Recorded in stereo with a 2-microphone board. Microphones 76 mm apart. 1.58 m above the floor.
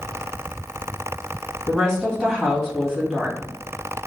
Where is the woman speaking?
5° left (ahead or behind), 1.4 m.